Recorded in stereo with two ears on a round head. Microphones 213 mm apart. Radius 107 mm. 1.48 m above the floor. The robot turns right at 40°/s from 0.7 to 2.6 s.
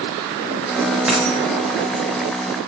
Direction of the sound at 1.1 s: 5° right (ahead or behind).